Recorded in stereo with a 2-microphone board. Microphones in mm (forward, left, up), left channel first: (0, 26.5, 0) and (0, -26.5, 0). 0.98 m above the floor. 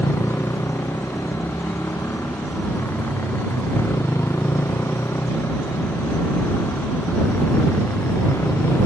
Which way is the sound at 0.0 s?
65° left (ahead or behind).